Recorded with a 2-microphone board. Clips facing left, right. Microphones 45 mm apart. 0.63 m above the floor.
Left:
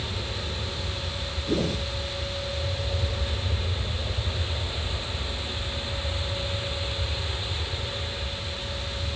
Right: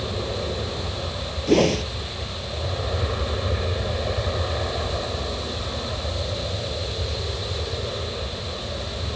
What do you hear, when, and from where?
0.0 s an aircraft: 60° right (ahead or behind)
1.5 s a whoosh: 75° right (ahead or behind)